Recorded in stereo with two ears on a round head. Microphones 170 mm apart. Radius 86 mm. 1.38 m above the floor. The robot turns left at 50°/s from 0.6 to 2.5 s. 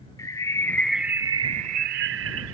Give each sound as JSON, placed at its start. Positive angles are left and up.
{"t": 0.2, "sound": "a bird", "azimuth_deg": 15}